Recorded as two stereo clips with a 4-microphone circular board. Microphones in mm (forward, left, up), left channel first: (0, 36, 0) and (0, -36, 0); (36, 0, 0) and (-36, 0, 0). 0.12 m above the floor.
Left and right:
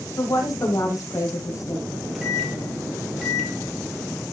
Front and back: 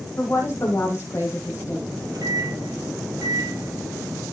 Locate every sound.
0.2 s a woman speaking: 50° left, 4 m
1.9 s a microwave: straight behind, 3 m